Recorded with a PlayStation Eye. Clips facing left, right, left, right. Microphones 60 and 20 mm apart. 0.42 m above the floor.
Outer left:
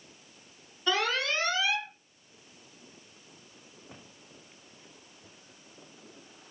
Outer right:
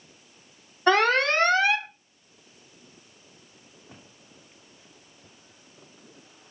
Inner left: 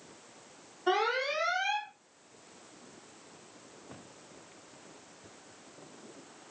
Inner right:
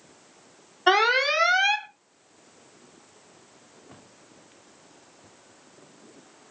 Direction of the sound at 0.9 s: 55° right (ahead or behind).